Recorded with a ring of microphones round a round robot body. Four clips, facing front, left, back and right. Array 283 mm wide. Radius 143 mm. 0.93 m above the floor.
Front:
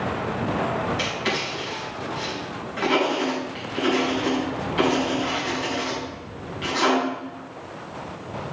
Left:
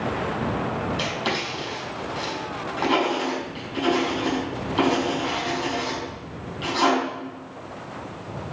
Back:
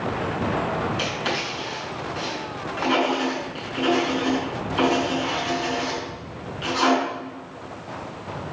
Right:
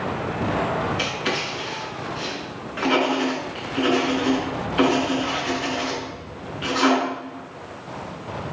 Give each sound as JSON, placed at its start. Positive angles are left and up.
{"t": 1.0, "sound": "writing", "azimuth_deg": 65, "distance_m": 4.0}